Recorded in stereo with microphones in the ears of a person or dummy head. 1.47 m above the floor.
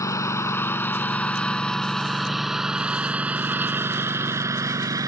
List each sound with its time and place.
0.0 s a lawn mower: 20° left (ahead or behind); by 5.1 s 15° right (ahead or behind)